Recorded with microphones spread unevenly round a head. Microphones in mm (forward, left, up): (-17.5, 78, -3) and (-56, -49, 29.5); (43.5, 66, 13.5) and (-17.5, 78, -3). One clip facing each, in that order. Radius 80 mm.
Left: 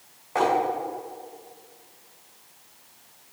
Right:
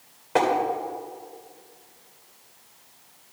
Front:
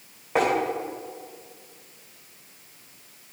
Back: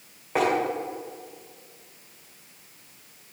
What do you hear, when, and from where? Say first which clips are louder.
0.3 s tapping: right 1 dB, front 1 dB; 100° right, 2.5 m